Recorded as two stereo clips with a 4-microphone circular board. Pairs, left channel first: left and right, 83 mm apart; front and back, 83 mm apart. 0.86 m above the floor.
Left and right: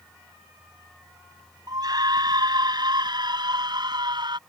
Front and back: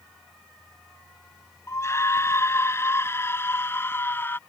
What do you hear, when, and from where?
1.7 s a scream: 55° right; by 4.4 s 65° right